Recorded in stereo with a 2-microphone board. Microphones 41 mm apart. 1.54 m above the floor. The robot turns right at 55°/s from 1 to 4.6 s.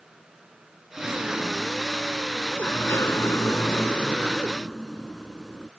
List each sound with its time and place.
1.0 s a sliding door: 35° right; by 5.7 s 165° left